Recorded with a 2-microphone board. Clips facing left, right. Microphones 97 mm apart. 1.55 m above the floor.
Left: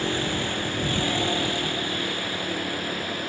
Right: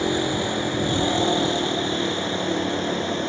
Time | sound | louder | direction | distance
0.0 | a vehicle | right 4 dB | 20° right (ahead or behind) | ?